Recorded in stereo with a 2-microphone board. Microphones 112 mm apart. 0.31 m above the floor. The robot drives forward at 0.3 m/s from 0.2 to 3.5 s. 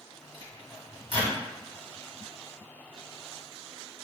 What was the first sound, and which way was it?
A microwave, 35° left (ahead or behind).